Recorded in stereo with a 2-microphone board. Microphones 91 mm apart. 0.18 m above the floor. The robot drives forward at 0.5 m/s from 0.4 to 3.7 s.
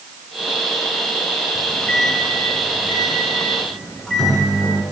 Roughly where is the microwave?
Centre.